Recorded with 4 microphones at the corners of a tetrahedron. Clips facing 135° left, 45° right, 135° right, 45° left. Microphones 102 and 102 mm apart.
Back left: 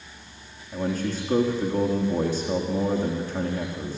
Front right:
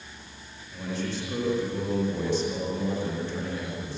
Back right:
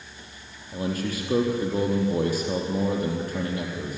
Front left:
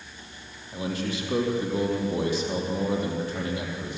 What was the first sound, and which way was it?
A man speaking, straight behind.